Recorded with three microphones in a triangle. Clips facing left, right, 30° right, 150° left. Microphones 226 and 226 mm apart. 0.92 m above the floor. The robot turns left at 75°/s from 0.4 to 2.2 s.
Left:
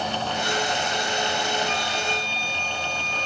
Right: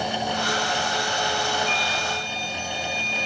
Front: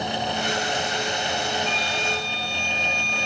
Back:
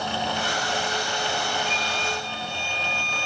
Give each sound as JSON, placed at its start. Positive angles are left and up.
{"t": 1.7, "sound": "a flute", "azimuth_deg": -95, "distance_m": 4.0}